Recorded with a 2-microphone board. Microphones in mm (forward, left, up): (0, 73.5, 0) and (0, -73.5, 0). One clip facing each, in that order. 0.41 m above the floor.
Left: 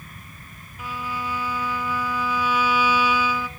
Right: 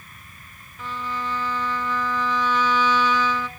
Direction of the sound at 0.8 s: 10° left (ahead or behind).